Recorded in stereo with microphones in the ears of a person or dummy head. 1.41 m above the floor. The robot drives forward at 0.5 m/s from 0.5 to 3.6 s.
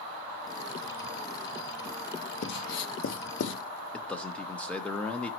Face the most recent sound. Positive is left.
turn(degrees=5)  # may be behind; listen again after turning